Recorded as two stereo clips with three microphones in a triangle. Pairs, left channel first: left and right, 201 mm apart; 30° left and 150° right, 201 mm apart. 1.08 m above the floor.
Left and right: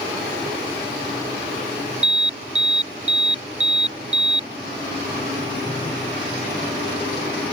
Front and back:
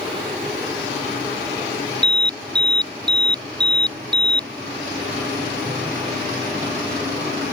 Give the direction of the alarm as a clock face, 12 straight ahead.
3 o'clock.